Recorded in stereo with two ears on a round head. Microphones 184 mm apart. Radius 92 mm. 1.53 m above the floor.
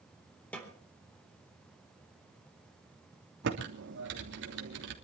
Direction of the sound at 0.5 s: 5° left (ahead or behind).